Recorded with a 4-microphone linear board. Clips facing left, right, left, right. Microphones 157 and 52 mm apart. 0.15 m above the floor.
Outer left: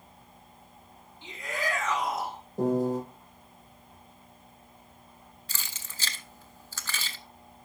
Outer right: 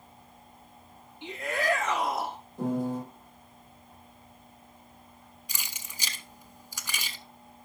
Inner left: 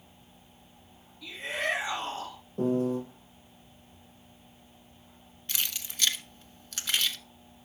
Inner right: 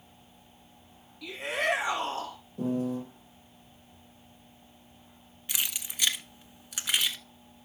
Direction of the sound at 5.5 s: 15° right (ahead or behind).